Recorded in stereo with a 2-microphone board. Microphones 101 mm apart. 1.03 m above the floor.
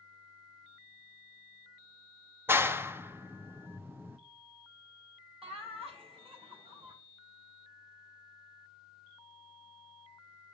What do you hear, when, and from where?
2.5 s a clap: 25° right (ahead or behind), 0.6 m
5.4 s laughter: 75° right (ahead or behind), 5 m